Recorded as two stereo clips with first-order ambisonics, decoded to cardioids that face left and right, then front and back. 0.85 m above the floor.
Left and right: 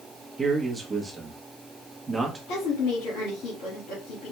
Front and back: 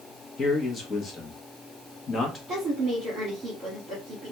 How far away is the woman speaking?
About 1.9 m.